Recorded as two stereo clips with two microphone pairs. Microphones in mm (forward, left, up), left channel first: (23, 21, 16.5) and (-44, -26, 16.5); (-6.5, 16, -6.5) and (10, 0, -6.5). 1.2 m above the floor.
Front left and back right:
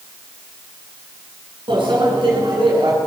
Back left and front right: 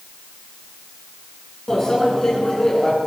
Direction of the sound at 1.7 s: 150° right.